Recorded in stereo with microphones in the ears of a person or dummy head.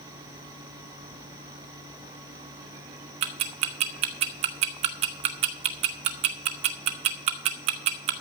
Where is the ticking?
40° right (ahead or behind), 0.7 m.